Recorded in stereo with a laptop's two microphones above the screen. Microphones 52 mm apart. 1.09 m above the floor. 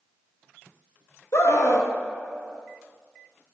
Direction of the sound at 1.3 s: 60° left (ahead or behind).